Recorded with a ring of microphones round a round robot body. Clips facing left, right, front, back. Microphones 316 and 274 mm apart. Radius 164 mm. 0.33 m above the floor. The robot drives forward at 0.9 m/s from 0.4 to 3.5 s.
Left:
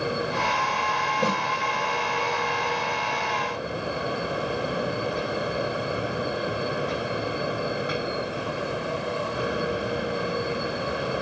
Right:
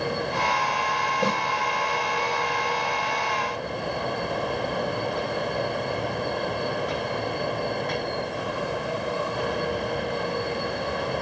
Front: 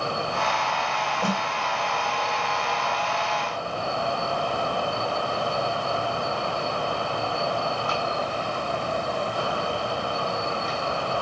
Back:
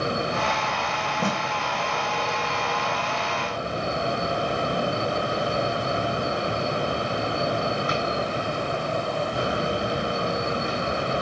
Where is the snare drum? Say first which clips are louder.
Even, even; 170° left, 9 m.